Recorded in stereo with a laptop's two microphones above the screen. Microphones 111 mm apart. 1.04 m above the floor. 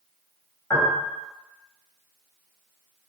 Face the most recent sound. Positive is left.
turn(degrees=25)  # may be behind; listen again after turning